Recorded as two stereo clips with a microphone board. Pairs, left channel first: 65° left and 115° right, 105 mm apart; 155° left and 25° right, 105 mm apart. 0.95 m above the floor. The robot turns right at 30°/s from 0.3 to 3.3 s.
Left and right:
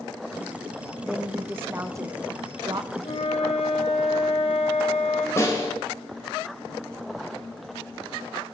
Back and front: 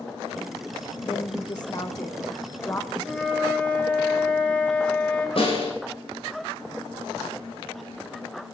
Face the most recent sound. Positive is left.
turn(degrees=130)